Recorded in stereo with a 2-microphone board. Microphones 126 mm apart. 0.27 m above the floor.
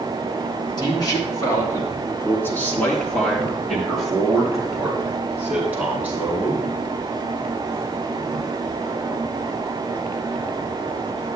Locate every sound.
0.8 s a man speaking: 35° left (ahead or behind), 3.5 m; by 6.7 s 15° right (ahead or behind), 5.5 m